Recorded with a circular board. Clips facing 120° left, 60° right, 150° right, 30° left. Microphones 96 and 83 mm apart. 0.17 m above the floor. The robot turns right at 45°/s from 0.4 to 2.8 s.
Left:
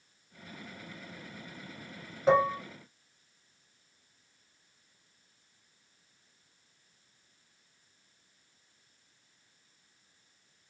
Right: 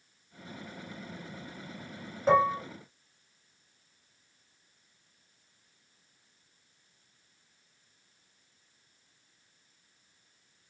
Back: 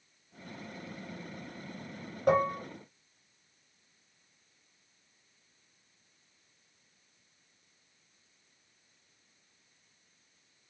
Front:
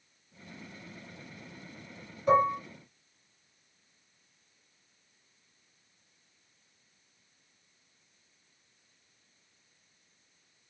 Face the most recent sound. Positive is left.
turn(degrees=-135)